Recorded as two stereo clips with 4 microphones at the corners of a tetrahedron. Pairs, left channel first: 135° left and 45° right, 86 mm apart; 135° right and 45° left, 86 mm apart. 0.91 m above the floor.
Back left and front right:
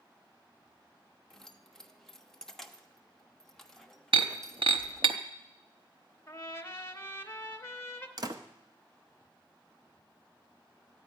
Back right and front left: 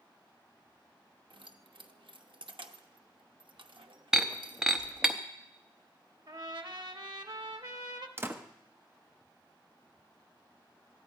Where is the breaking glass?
35° right, 0.8 m.